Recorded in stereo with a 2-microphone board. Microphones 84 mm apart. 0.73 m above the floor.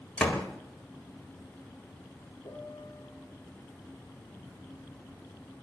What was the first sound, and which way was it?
A door slam, 10° left (ahead or behind).